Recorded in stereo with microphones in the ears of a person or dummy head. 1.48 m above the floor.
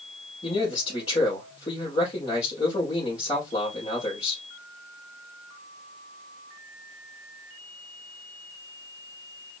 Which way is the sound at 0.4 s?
25° left (ahead or behind).